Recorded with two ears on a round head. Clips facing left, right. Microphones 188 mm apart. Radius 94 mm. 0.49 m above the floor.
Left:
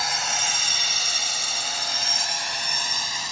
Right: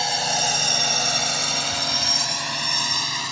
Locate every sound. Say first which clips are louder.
0.0 s a drone: right 6 dB; 25° right (ahead or behind); by 3.3 s 70° right (ahead or behind)